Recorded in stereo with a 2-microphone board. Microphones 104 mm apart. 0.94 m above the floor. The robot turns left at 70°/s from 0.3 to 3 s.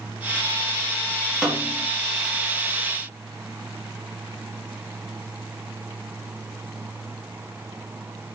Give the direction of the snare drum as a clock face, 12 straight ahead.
6 o'clock.